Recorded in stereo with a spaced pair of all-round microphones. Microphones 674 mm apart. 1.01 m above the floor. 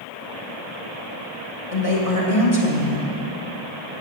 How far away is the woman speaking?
About 1.8 m.